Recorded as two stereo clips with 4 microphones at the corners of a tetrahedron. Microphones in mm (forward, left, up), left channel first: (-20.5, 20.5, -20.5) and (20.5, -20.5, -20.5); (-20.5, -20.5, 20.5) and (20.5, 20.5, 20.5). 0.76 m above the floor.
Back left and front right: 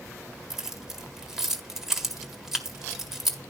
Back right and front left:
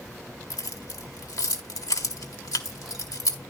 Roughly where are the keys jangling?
Behind right.